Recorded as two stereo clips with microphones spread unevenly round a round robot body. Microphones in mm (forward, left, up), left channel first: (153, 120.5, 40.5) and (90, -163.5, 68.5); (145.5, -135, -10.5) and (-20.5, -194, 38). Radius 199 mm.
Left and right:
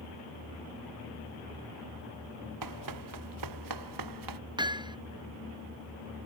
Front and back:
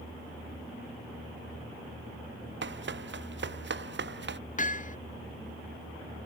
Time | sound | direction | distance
2.6 | running footsteps | 145° right | ?
4.6 | hammering | 25° right | ?